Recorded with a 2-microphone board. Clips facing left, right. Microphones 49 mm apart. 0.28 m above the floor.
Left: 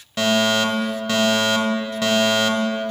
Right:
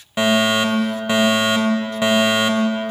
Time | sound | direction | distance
0.2 | a fire alarm | 20° right (ahead or behind) | 2.5 m